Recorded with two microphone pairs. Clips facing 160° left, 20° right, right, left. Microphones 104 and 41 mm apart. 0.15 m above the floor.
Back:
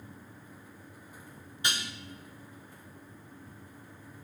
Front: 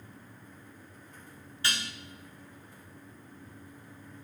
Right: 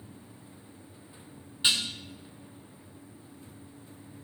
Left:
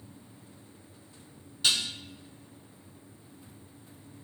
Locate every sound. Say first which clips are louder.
1.6 s dishes clattering: even, right 1 dB; 140° right, 1.2 m